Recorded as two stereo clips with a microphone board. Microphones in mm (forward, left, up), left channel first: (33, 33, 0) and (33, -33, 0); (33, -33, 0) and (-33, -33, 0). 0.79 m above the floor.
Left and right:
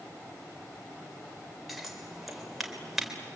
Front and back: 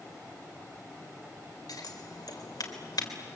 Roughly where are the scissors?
Ahead.